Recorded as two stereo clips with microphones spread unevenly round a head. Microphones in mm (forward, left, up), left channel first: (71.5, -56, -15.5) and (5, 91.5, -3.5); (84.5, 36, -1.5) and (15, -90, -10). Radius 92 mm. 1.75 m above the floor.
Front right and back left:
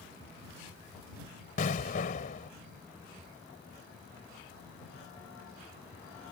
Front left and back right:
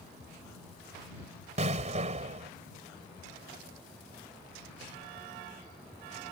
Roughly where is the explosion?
Right.